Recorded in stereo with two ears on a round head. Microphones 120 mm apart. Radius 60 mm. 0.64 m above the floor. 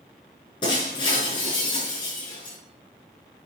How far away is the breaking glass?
About 5.5 m.